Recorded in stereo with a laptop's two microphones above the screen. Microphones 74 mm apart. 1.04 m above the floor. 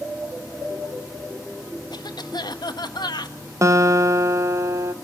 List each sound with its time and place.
1.9 s a cough: 75° left (ahead or behind), 1.3 m
3.6 s a guitar: 40° right (ahead or behind), 1.0 m